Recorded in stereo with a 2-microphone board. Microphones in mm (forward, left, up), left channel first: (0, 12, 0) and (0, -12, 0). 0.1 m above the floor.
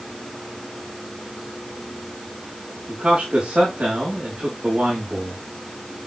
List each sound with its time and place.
2.9 s a man speaking: 60° right (ahead or behind), 4.5 m